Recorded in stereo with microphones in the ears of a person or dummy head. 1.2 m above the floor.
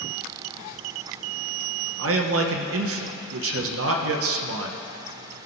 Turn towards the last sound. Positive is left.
turn(degrees=-70)  # may be behind; listen again after turning